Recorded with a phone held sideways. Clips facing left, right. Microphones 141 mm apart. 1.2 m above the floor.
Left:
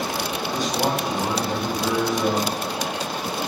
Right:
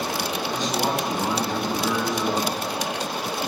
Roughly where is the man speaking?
Centre.